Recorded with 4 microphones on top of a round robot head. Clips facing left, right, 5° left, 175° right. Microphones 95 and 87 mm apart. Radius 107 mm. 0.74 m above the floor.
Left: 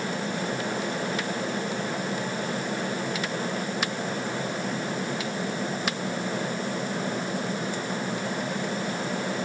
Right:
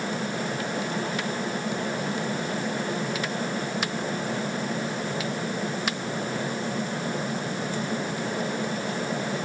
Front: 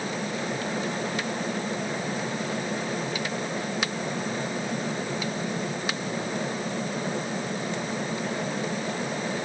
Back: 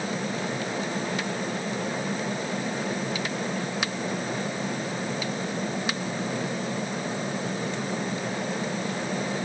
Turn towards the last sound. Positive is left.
No sound to turn to.